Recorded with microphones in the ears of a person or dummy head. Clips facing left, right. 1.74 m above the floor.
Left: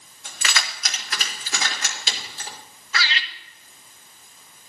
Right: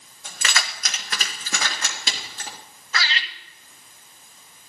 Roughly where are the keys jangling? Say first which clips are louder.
Right 1 dB; right.